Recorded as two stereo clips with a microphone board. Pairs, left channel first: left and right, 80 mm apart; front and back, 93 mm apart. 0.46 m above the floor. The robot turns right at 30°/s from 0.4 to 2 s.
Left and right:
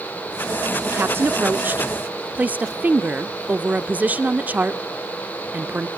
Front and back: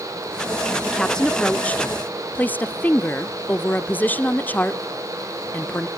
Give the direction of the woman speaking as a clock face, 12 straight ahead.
3 o'clock.